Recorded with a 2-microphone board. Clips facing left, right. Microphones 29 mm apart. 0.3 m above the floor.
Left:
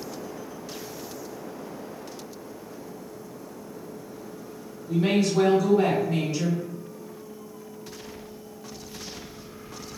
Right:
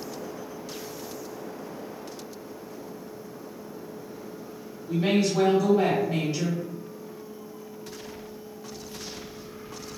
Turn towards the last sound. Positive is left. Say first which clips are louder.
# left 1 dB
turn(degrees=-25)  # may be behind; listen again after turning